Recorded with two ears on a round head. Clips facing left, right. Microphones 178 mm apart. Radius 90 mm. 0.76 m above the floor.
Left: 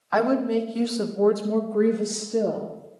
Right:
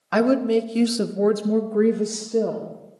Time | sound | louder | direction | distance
0.1 | a woman speaking | right 3 dB | 35° right (ahead or behind) | 0.9 m